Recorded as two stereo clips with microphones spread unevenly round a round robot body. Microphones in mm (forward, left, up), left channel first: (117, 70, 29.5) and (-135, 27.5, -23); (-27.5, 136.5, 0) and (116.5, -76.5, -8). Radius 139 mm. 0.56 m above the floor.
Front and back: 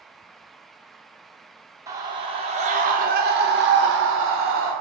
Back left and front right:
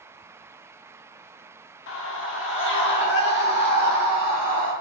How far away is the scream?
About 1.5 m.